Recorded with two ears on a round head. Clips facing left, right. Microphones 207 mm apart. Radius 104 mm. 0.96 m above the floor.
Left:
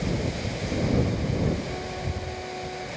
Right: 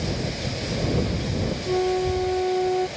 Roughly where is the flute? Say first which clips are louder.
Right 12 dB; right.